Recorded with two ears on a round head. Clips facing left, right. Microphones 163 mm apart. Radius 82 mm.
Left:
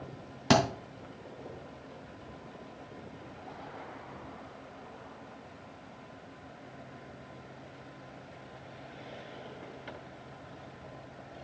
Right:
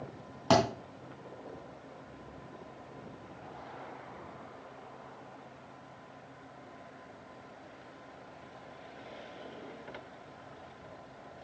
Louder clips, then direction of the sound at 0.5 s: Even; 20° left (ahead or behind).